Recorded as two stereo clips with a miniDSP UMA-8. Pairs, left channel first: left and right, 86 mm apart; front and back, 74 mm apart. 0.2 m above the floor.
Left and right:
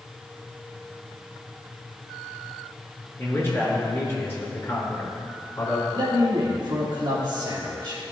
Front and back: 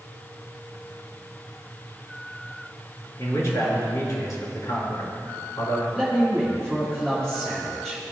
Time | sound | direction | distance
3.2 | a man speaking | 30° left | 3 m
6.0 | a man speaking | 85° right | 2.5 m